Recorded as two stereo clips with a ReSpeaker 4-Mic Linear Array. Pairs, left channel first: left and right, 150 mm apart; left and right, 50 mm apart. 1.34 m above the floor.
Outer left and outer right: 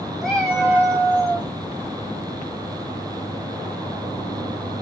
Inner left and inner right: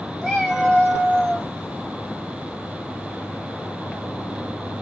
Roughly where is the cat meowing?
Centre.